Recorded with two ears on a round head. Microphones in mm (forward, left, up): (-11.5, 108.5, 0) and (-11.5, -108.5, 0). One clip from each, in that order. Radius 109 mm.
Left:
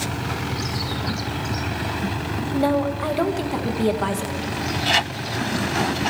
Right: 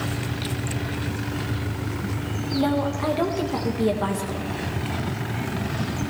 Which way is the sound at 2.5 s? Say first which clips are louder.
Left 2 dB; 20° left (ahead or behind).